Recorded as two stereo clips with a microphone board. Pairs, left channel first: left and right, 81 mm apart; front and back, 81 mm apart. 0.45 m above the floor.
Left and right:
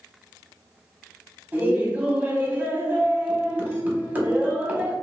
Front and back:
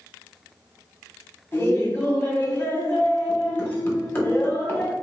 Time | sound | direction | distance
1.5 | laughter | 40° right | 1.3 m